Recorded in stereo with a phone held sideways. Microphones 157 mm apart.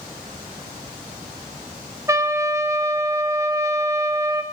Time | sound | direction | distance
2.1 | a trumpet | 20° right (ahead or behind) | 1.2 m